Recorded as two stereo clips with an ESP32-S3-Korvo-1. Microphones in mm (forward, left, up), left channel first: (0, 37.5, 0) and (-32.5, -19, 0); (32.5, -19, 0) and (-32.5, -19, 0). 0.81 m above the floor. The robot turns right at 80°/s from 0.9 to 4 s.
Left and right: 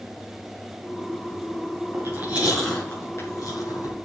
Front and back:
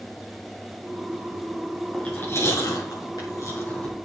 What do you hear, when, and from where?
1.9 s chewing: 85° right, 6 m; by 4.0 s 80° left, 6 m